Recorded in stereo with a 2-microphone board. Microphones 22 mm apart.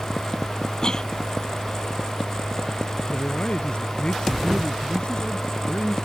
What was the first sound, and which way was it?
A cough, 35° left (ahead or behind).